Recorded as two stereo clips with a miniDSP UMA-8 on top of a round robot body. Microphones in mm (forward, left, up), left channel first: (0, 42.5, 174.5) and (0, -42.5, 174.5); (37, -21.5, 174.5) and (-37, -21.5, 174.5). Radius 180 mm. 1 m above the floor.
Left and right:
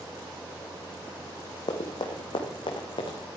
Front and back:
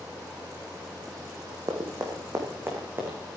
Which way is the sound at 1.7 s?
130° left.